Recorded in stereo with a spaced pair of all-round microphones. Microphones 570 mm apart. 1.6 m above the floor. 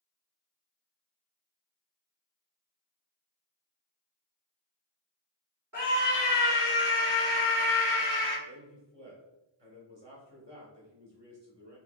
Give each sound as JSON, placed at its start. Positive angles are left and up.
{"t": 5.7, "sound": "a scream", "side_deg": -30, "distance_m": 1.3}
{"t": 8.4, "sound": "a man speaking", "side_deg": -45, "distance_m": 1.5}